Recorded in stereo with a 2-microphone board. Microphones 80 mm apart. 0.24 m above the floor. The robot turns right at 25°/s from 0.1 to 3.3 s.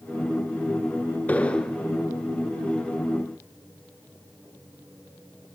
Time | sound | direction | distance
1.3 | an explosion | 25° left (ahead or behind) | 0.6 m